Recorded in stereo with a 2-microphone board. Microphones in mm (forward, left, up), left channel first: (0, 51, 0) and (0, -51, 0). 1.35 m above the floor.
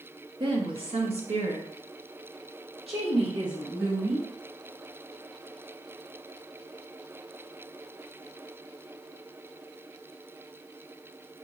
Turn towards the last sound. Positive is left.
turn(degrees=-40)  # may be behind; listen again after turning